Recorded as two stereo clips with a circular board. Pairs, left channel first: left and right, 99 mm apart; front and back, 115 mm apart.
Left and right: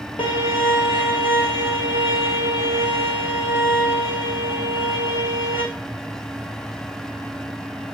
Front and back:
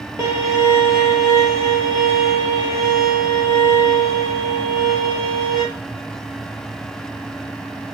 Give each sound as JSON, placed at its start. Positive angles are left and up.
{"t": 0.2, "sound": "a violin", "azimuth_deg": 115, "distance_m": 1.3}